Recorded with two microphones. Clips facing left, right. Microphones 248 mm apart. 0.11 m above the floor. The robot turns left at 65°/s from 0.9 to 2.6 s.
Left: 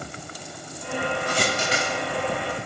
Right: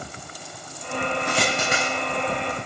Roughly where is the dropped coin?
Right.